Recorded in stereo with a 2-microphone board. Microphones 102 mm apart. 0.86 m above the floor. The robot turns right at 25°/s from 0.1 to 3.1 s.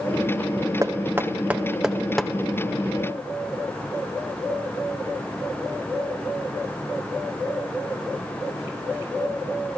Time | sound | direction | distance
0.8 | knocking | 30° right (ahead or behind) | 1.2 m